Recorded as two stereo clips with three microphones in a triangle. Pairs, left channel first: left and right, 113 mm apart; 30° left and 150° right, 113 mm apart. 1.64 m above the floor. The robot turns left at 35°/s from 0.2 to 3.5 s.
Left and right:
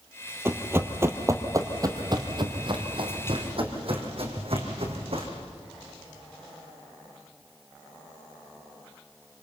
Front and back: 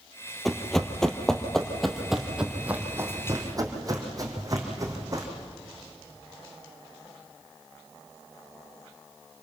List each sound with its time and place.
0.5 s running footsteps: 60° right, 1.8 m; by 5.3 s 95° right, 4 m